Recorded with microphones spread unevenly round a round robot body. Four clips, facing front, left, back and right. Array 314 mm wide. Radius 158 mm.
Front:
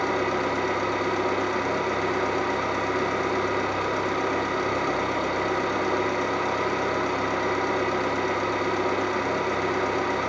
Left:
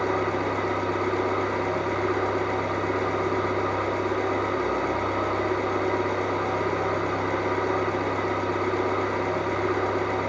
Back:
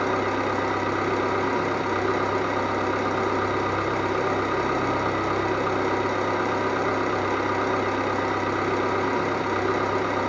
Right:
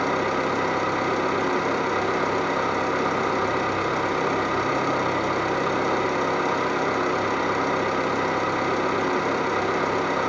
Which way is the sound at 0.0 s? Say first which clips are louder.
Right 2 dB, back 1 dB; 135° right.